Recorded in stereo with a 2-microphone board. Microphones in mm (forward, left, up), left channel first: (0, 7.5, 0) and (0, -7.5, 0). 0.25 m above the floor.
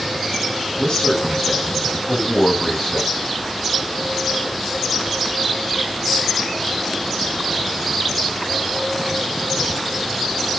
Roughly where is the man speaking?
Left.